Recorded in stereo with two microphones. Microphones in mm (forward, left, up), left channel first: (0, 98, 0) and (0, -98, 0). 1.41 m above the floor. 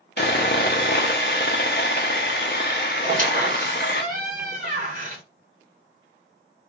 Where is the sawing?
55° left (ahead or behind), 0.5 m.